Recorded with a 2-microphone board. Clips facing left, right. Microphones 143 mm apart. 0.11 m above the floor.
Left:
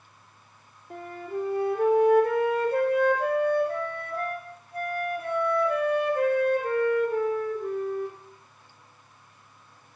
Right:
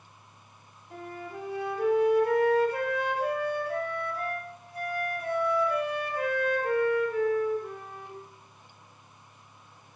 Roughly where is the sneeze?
No sneeze in this recording.